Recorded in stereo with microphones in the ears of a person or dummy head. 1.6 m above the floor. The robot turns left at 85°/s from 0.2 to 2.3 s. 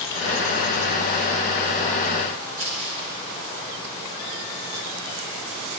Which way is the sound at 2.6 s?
35° right (ahead or behind).